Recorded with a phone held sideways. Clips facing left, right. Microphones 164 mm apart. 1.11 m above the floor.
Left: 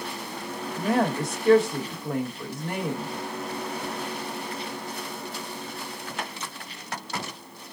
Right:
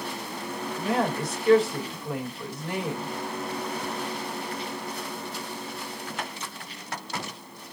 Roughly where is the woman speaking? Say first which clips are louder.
Left 3 dB; left.